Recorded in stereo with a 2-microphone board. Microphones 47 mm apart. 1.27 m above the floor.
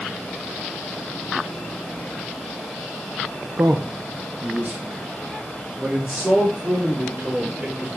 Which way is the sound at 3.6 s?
60° right (ahead or behind).